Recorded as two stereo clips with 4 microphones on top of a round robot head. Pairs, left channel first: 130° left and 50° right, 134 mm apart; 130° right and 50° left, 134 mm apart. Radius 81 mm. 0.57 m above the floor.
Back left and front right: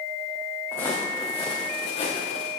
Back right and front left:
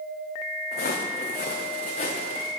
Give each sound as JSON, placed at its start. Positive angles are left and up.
{"t": 0.7, "sound": "footsteps", "azimuth_deg": -150, "distance_m": 2.5}